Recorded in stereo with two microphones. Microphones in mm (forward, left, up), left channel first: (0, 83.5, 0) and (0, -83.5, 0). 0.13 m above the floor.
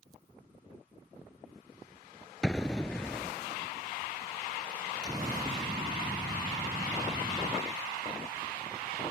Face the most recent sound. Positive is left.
turn(degrees=-25)  # may be behind; listen again after turning